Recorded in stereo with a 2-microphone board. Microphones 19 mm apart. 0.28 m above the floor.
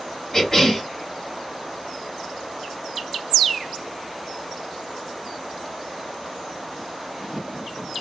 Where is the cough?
30° left (ahead or behind), 2.0 m.